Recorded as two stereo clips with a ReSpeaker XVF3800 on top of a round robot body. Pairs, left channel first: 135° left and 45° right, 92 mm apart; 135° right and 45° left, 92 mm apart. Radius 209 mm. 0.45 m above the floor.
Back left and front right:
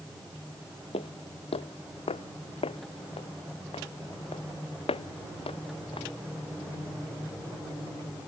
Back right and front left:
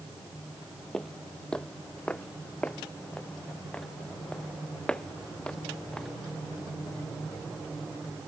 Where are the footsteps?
140° left; by 6.1 s 145° left.